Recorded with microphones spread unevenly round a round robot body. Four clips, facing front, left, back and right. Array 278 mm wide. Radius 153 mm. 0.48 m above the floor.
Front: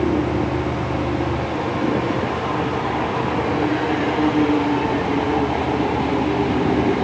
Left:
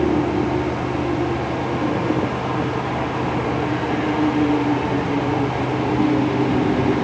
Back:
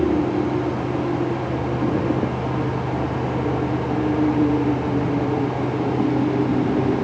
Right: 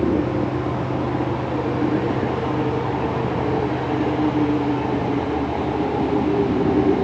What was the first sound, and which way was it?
Only background noise.